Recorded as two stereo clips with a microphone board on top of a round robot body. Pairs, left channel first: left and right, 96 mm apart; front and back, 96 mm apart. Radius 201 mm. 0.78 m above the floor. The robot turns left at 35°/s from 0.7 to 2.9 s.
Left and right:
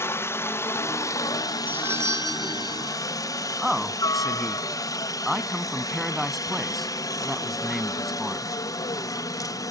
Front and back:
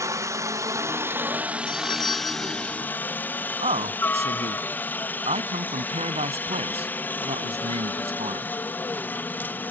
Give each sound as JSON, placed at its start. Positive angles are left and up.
{"t": 0.0, "sound": "a helicopter", "azimuth_deg": 140}
{"t": 1.7, "sound": "a doorbell", "azimuth_deg": -20}
{"t": 3.6, "sound": "a man speaking", "azimuth_deg": 180}